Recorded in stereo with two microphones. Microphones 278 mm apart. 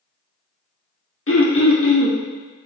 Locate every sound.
1.3 s throat clearing: 50° left (ahead or behind), 0.6 m